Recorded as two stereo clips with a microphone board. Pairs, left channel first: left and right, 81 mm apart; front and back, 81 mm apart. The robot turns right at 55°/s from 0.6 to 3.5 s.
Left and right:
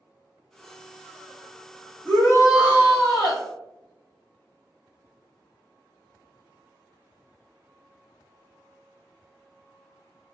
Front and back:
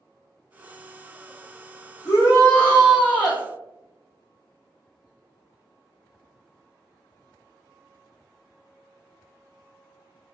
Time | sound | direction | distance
2.0 | a shout | 30° left | 1.8 m